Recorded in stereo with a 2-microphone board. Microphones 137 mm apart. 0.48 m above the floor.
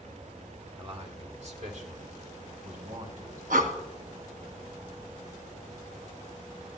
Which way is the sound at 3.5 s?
85° right.